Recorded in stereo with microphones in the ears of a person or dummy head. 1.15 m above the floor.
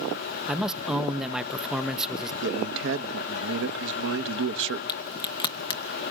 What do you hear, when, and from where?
0.5 s a man speaking: centre (ahead or behind), 0.8 m
2.4 s a man speaking: 65° right (ahead or behind), 1.2 m
4.9 s a crack: 25° left (ahead or behind), 0.9 m